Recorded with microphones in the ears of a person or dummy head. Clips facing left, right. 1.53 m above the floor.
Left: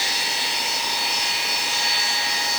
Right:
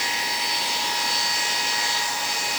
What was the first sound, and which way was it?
Only background noise.